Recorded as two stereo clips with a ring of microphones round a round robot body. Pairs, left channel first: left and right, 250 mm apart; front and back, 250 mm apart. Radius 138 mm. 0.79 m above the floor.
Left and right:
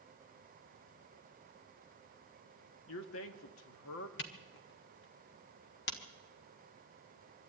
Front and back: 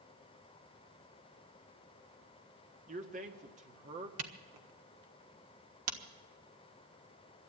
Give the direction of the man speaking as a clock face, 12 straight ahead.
8 o'clock.